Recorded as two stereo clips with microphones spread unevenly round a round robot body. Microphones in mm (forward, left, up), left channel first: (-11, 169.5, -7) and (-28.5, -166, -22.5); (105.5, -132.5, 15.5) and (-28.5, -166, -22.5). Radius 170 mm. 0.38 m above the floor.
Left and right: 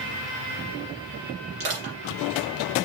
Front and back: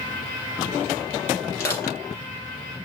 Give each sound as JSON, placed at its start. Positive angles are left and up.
{"t": 1.6, "sound": "crushing", "azimuth_deg": -60, "distance_m": 4.0}